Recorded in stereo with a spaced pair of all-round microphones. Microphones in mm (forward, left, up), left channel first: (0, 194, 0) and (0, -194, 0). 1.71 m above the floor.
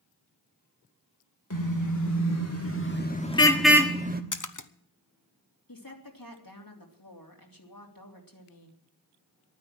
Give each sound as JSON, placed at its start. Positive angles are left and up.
{"t": 1.5, "sound": "a car horn", "side_deg": 50, "distance_m": 2.5}
{"t": 4.3, "sound": "a splash", "side_deg": 50, "distance_m": 0.8}
{"t": 5.7, "sound": "a woman speaking", "side_deg": 60, "distance_m": 3.0}